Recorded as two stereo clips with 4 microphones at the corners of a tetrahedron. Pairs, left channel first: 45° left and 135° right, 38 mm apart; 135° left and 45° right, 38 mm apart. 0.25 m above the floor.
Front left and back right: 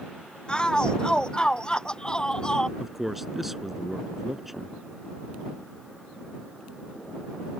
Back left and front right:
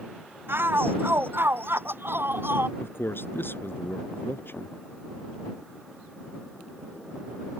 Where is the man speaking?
140° left.